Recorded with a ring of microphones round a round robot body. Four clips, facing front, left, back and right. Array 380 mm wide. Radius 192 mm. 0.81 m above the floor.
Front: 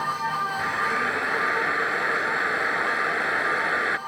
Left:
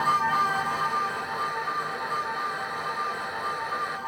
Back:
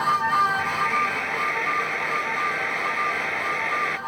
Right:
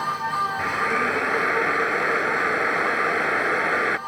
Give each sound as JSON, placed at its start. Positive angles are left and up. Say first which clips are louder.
{"t": 0.6, "sound": "a drill", "louder": "right 3 dB, back 2 dB", "azimuth_deg": -80}